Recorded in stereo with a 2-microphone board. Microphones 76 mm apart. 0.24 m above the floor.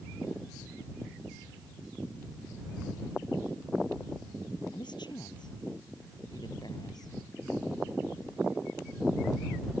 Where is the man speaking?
75° left (ahead or behind); by 7.1 s 60° left (ahead or behind).